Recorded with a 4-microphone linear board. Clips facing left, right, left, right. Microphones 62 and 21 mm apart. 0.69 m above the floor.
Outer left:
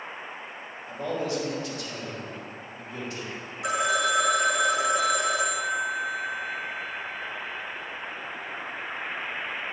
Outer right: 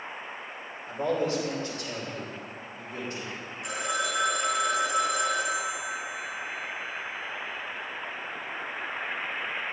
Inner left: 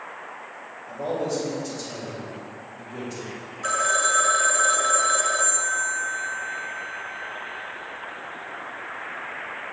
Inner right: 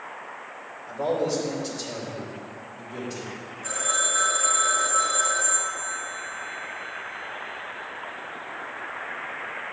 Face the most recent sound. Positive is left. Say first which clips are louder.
# outer left 6 dB, inner left 6 dB
turn(degrees=70)  # may be behind; listen again after turning